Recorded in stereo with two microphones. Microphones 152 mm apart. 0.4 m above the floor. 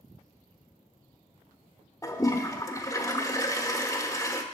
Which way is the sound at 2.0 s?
20° left (ahead or behind).